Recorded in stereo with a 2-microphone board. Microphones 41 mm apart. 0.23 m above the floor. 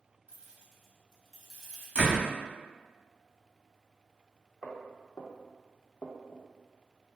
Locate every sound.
0.3 s keys jangling: 25° right (ahead or behind), 0.7 m; by 1.9 s 10° left (ahead or behind), 1.1 m
1.9 s a door slam: 30° right (ahead or behind), 0.9 m
4.6 s footsteps: 35° left (ahead or behind), 1.0 m; by 6.5 s 65° left (ahead or behind), 0.6 m